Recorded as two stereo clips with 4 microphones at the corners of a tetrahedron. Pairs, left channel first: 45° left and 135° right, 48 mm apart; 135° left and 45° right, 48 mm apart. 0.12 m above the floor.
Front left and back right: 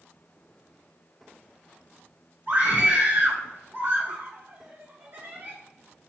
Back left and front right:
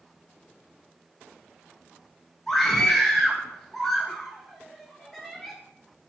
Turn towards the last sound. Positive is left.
turn(degrees=-140)